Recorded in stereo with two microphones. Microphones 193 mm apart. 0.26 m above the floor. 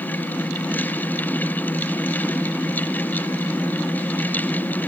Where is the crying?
No crying in this recording.